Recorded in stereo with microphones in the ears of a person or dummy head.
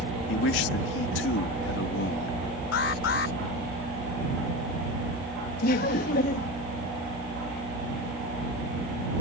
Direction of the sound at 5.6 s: 65° left (ahead or behind).